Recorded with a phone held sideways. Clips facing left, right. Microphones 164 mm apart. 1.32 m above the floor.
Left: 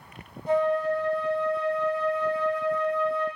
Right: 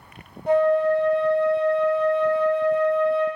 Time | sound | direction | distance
0.5 | a flute | 65° right (ahead or behind) | 0.7 m